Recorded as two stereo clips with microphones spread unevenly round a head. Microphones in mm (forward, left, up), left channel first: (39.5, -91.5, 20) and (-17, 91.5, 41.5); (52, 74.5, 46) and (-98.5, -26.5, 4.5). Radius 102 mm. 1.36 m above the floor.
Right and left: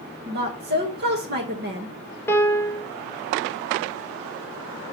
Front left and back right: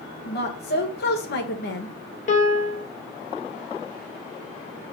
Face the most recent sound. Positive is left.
turn(degrees=10)